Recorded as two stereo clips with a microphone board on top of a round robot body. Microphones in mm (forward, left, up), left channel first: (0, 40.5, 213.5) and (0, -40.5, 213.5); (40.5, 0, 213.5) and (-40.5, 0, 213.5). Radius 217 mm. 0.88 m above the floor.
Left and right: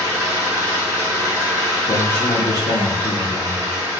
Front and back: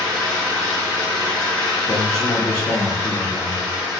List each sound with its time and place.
0.0 s an engine running: 65° right, 1.7 m
1.9 s a man speaking: 65° left, 0.6 m